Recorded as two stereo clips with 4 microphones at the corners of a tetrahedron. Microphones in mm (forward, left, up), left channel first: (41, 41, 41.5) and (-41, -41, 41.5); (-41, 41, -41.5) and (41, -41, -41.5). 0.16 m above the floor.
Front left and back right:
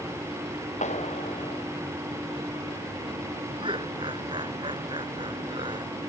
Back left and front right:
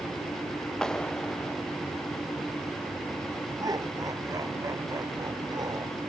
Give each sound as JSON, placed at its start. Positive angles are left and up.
{"t": 0.8, "sound": "a clap", "azimuth_deg": 50}
{"t": 3.6, "sound": "laughter", "azimuth_deg": -100}